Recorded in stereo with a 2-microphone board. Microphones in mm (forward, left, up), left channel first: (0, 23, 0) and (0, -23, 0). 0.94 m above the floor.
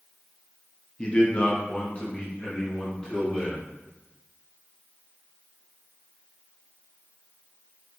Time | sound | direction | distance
1.0 | a man speaking | 25° left (ahead or behind) | 0.7 m